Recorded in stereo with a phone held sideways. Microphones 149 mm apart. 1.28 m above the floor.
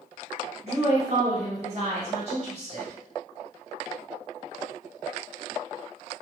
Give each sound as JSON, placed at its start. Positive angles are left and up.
{"t": 0.6, "sound": "a woman speaking", "side_deg": -40, "distance_m": 1.1}